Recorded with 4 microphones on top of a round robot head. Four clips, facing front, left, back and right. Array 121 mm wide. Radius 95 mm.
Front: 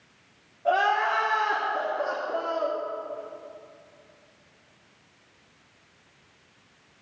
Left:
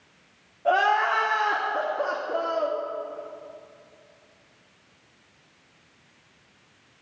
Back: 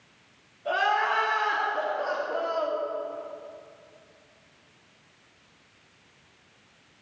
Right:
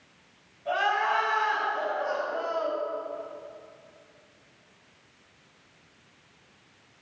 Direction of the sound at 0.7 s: 60° left.